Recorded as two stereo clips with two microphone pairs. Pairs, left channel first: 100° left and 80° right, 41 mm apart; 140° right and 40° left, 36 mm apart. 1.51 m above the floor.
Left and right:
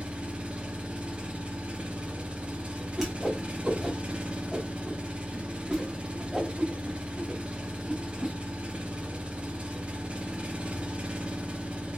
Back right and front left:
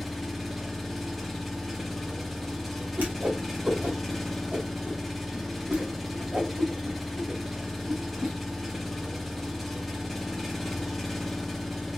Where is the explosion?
I don't hear an explosion.